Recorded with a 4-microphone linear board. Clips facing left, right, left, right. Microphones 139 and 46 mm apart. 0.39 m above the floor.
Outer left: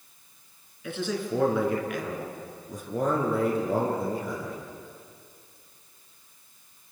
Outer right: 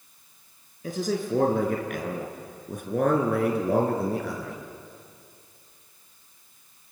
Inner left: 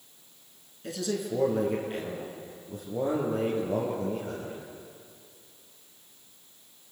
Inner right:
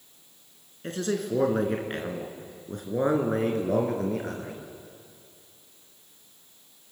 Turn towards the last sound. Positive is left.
turn(degrees=-75)  # may be behind; listen again after turning